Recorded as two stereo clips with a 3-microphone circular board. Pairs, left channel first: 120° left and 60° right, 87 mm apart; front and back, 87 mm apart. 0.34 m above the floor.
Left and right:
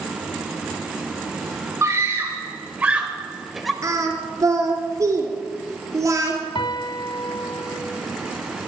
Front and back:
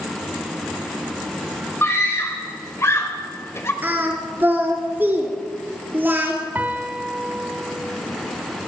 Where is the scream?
35° right, 1.7 m; by 3.7 s 30° left, 1.7 m.